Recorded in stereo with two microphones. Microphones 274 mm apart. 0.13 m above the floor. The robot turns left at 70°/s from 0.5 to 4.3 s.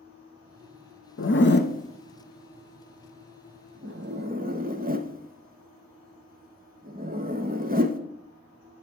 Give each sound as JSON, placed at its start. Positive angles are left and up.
{"t": 1.2, "sound": "a zipper", "side_deg": 45, "distance_m": 0.5}